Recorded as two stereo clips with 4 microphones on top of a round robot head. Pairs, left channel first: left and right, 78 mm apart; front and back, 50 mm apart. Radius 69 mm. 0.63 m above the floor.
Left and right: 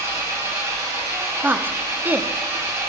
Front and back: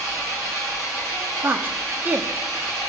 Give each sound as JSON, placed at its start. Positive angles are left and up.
{"t": 0.0, "sound": "an engine running", "azimuth_deg": -145, "distance_m": 3.0}
{"t": 1.4, "sound": "a woman speaking", "azimuth_deg": -150, "distance_m": 0.9}